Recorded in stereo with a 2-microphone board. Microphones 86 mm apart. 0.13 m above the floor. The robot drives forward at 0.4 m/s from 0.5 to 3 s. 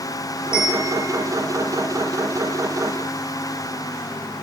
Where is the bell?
40° left (ahead or behind), 2.5 m; by 1.3 s 45° left (ahead or behind), 2.5 m.